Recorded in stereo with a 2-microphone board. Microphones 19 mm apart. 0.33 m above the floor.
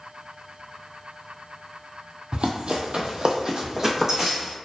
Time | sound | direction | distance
2.3 | running footsteps | 55° right (ahead or behind) | 0.5 m